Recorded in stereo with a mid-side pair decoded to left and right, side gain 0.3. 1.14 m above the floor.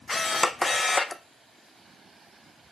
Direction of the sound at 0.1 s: 40° left.